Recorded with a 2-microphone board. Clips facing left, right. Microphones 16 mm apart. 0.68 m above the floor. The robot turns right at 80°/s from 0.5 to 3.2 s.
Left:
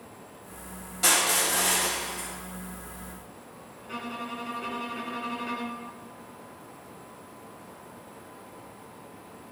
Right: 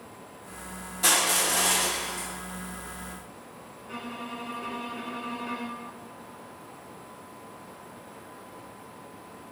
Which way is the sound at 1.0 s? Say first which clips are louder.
Even; 155° left.